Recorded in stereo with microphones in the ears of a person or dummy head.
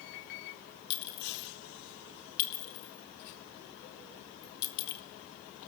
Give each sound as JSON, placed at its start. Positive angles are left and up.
{"t": 0.9, "sound": "a clink", "side_deg": 55, "distance_m": 1.4}